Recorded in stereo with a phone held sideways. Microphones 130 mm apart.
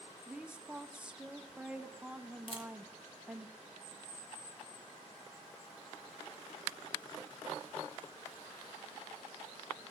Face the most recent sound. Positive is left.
turn(degrees=45)  # may be behind; listen again after turning